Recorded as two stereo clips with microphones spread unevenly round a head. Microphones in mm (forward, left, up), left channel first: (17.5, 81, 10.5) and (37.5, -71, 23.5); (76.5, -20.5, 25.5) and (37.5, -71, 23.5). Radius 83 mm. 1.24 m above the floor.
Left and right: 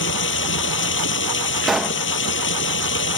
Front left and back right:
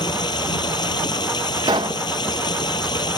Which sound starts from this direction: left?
Running water, at 0.0 s.